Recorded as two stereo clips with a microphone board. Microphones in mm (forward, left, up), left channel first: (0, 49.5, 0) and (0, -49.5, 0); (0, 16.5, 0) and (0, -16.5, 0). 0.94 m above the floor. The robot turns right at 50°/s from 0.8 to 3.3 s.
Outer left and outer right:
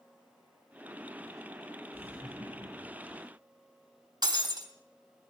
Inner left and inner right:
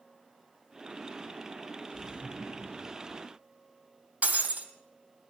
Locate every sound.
1.9 s laughter: 150° right, 3 m; by 3.2 s 85° right, 3 m
4.2 s breaking glass: 50° right (ahead or behind), 2.5 m